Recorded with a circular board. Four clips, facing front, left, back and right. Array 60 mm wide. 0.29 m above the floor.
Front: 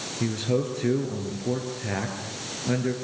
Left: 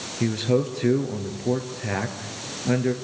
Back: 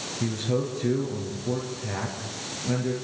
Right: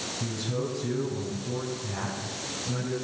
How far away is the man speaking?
About 6 m.